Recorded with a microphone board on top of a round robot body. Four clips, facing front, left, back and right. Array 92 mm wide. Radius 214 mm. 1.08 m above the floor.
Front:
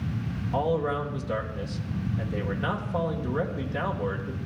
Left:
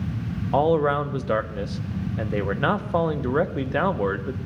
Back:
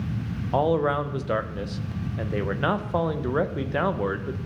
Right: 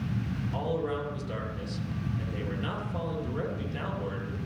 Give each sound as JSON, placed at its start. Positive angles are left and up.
{"t": 0.5, "sound": "a man speaking", "azimuth_deg": 120, "distance_m": 0.8}